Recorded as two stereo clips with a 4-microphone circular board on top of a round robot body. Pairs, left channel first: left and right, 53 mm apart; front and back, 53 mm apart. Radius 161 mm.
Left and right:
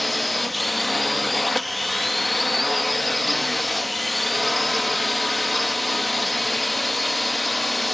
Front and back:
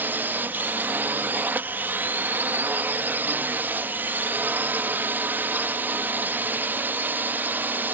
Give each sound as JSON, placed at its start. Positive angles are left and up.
{"t": 0.0, "sound": "a drone", "azimuth_deg": 180}